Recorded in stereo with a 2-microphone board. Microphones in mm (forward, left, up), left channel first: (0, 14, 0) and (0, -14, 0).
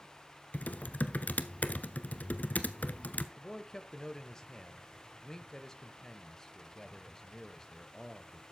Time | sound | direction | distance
0.5 | typing on a keyboard | 75° left (ahead or behind) | 0.8 m
3.4 | a man speaking | 20° left (ahead or behind) | 0.9 m